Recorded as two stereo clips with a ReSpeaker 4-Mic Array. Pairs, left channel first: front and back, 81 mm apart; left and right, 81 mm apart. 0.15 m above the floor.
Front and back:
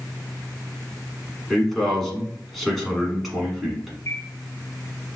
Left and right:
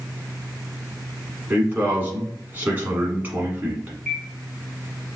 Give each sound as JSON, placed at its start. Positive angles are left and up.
{"t": 1.5, "sound": "a man speaking", "azimuth_deg": -85, "distance_m": 1.1}
{"t": 4.1, "sound": "a bird", "azimuth_deg": -10, "distance_m": 1.2}